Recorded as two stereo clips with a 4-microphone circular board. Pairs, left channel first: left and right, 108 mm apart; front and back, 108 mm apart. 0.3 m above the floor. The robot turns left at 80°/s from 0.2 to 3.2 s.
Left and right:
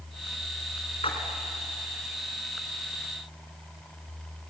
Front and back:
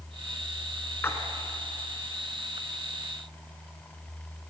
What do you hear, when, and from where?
1.0 s a splash: 70° left, 2 m; by 1.2 s 55° left, 2 m